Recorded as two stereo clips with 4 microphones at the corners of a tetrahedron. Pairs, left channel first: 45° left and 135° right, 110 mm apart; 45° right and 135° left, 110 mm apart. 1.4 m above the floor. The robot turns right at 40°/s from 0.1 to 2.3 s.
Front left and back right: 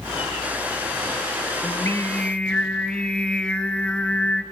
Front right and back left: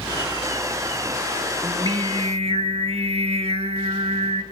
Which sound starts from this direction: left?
Singing, at 1.6 s.